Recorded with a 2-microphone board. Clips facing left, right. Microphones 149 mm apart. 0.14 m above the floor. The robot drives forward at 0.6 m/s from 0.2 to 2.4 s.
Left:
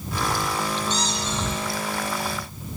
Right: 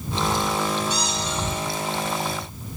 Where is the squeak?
10° right (ahead or behind), 10 m.